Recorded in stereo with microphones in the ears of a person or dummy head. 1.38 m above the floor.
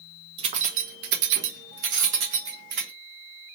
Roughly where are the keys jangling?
Right.